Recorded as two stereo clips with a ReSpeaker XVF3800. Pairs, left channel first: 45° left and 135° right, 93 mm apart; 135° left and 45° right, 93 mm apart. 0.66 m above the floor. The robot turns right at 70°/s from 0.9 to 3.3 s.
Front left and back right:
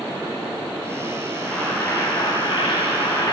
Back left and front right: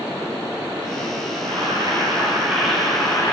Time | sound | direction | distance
1.4 | boiling | 50° right | 6.5 m